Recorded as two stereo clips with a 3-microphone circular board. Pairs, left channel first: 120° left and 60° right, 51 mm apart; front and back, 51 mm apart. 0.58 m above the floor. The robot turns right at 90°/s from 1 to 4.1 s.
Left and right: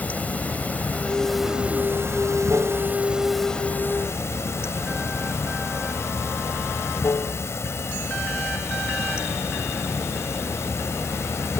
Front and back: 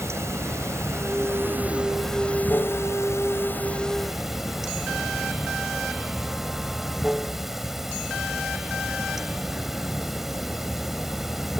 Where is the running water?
175° left; by 11.6 s 95° left.